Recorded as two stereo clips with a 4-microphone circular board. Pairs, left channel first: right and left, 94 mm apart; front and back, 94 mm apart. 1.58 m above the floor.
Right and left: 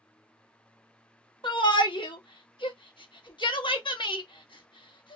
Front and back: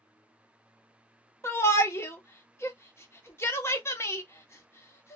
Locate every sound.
1.4 s a shout: 60° right, 0.9 m